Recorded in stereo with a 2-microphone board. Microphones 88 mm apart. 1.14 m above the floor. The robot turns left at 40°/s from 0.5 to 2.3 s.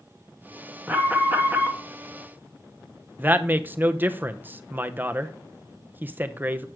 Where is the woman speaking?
20° right (ahead or behind), 0.6 m.